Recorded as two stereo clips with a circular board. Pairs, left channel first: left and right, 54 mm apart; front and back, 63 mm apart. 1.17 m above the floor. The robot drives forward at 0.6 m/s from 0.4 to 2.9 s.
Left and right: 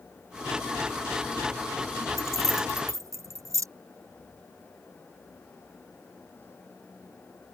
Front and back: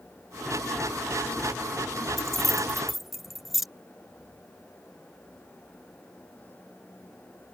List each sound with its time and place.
2.2 s keys jangling: 85° right; by 3.7 s 95° right